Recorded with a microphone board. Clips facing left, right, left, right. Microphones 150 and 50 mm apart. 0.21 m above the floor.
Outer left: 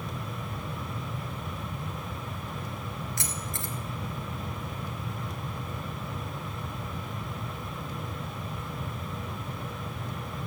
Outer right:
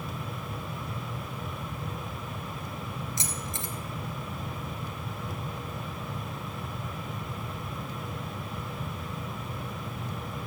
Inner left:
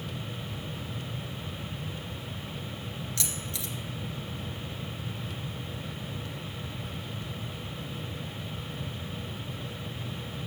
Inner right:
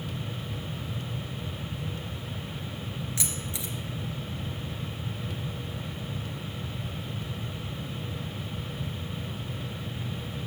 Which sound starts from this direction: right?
Keys jangling, at 3.2 s.